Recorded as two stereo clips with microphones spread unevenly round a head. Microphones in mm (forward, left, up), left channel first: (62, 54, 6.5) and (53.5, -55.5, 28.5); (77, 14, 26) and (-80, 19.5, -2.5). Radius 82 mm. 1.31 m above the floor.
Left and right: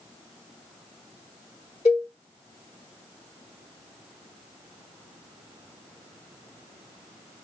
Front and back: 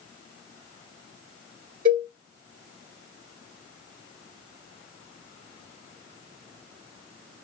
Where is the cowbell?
145° left, 1.5 m.